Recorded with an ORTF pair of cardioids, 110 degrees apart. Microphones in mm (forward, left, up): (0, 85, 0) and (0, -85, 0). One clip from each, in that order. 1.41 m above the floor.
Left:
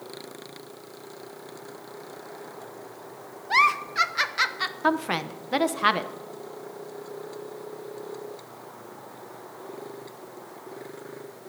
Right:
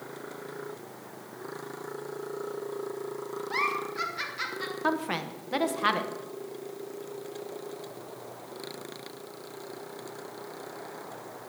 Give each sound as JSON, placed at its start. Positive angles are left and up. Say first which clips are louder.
{"t": 3.5, "sound": "a giggle", "louder": "left 9 dB", "azimuth_deg": 55, "distance_m": 0.7}
{"t": 4.8, "sound": "a woman speaking", "louder": "left 4 dB", "azimuth_deg": 25, "distance_m": 0.9}